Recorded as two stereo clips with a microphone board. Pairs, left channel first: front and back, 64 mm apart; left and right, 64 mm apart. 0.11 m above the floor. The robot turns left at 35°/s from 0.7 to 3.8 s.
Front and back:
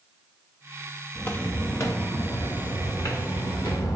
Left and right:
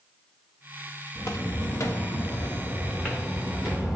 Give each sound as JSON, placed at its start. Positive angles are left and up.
{"t": 1.1, "sound": "footsteps", "azimuth_deg": 60, "distance_m": 1.2}